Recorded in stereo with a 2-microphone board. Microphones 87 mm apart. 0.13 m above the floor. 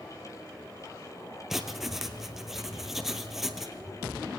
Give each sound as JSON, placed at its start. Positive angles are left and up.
{"t": 1.5, "sound": "writing", "side_deg": -5, "distance_m": 1.5}